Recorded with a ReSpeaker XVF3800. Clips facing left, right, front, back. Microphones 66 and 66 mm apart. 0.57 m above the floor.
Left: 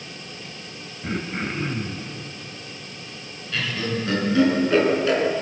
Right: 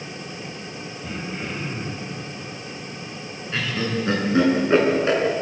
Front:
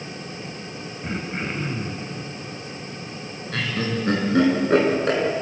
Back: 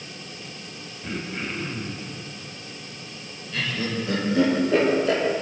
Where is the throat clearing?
50° left, 2.5 m.